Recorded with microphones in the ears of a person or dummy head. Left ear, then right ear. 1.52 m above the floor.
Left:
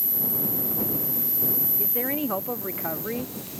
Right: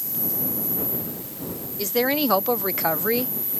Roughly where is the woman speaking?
Right.